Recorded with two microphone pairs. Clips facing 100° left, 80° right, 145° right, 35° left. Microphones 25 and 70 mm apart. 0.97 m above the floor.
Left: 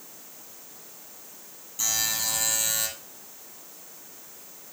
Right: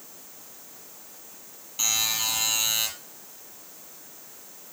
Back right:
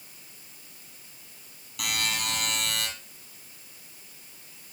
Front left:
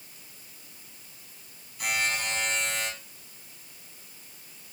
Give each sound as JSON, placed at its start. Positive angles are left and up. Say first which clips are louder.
{"t": 1.8, "sound": "a buzzer", "louder": "right 2 dB, front left 2 dB", "azimuth_deg": -130, "distance_m": 6.5}